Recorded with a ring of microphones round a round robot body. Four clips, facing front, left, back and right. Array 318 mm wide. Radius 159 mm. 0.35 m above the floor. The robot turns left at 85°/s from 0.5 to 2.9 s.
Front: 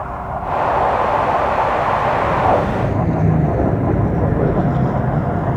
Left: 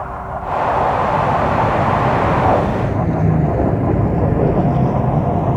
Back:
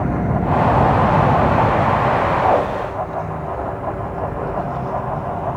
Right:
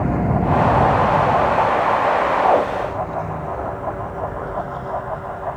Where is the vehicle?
130° right; by 5.6 s 60° left.